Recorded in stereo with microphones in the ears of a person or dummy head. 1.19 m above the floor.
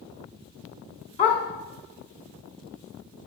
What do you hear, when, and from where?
1.2 s a dog barking: 30° left (ahead or behind), 2.5 m